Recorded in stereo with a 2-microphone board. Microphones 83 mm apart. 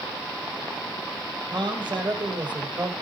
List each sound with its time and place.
1.5 s a man speaking: 70° right (ahead or behind), 4 m; by 2.9 s 60° right (ahead or behind), 3.5 m